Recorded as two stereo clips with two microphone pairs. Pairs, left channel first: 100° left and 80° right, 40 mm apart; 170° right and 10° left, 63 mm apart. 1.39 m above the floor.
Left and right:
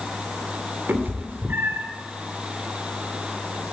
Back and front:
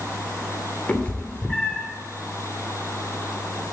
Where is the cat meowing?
100° right, 2.5 m.